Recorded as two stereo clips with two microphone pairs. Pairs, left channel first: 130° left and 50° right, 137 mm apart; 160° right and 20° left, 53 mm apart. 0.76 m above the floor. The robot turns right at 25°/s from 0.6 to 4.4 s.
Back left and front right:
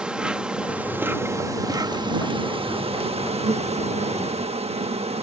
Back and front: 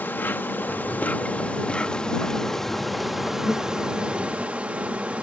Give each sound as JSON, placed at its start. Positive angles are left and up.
{"t": 0.0, "sound": "an insect", "azimuth_deg": -130}